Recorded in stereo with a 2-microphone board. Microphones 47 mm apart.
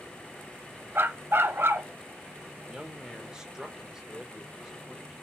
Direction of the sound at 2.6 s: 15° right (ahead or behind).